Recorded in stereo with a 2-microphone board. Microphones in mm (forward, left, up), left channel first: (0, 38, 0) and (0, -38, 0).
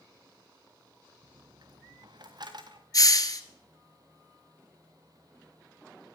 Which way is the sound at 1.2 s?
60° right (ahead or behind).